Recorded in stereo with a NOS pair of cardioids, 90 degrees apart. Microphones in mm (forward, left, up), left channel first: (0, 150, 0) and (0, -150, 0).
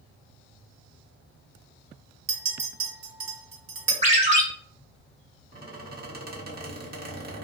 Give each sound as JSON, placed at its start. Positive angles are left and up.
{"t": 2.3, "sound": "a clink", "azimuth_deg": -60, "distance_m": 1.1}
{"t": 4.0, "sound": "a ringtone", "azimuth_deg": -25, "distance_m": 1.1}
{"t": 5.5, "sound": "a squeak", "azimuth_deg": -35, "distance_m": 0.9}